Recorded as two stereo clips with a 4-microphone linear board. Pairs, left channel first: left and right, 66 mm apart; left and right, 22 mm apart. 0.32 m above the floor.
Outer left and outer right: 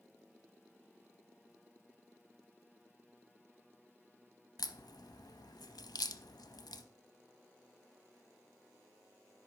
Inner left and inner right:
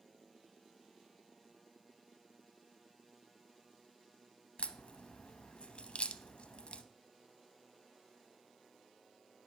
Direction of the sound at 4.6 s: 70° left (ahead or behind).